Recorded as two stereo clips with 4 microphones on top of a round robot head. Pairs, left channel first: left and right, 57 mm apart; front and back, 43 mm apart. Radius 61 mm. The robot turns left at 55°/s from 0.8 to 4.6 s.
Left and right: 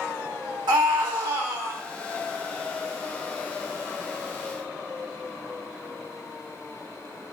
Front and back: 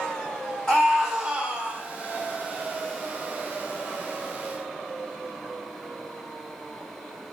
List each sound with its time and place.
0.7 s a scream: 75° right, 1.2 m; by 1.8 s 130° right, 1.2 m